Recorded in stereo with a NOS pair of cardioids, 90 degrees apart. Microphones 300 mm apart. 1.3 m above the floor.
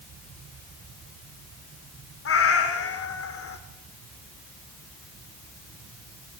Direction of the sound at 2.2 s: 50° left.